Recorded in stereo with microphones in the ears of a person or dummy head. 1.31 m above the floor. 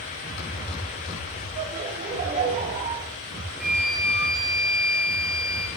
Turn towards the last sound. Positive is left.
turn(degrees=0)  # may be behind; listen again after turning